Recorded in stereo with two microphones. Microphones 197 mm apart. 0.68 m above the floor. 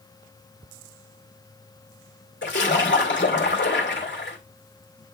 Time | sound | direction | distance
2.4 | a splash | 65° left (ahead or behind) | 2.5 m